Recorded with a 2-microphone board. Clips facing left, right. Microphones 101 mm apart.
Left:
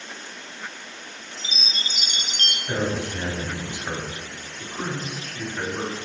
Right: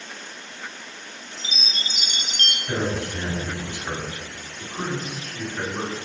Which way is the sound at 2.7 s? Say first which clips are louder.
Even; 15° left (ahead or behind).